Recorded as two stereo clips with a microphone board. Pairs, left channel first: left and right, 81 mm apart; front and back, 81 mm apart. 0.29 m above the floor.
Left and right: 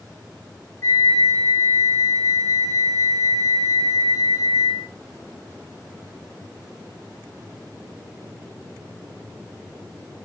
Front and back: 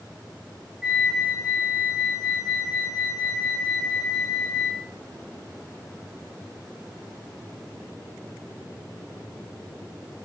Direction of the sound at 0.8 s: 105° left.